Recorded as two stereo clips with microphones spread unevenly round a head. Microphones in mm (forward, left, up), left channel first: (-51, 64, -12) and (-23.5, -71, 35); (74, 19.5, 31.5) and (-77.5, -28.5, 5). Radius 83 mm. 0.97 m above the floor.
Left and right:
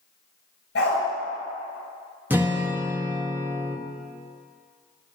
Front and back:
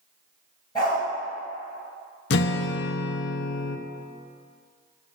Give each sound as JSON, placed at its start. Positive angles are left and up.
{"t": 0.8, "sound": "a dog barking", "azimuth_deg": 80, "distance_m": 3.5}
{"t": 2.3, "sound": "a guitar", "azimuth_deg": 0, "distance_m": 0.5}